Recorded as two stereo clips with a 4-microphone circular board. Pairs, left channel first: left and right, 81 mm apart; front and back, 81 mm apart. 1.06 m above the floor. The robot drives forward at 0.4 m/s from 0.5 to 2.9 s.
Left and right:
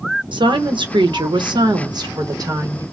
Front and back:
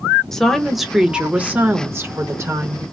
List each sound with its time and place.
0.3 s a woman speaking: 85° right, 0.9 m; by 2.8 s 135° right, 1.2 m